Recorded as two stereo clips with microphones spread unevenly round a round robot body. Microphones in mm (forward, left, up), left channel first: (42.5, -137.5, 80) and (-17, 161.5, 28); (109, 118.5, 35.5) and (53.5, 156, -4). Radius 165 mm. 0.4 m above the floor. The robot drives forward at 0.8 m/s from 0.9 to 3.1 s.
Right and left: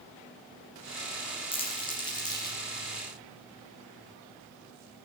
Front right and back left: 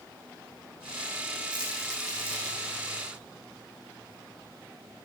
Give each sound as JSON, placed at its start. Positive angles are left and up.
{"t": 1.5, "sound": "crumpling", "azimuth_deg": -155, "distance_m": 3.0}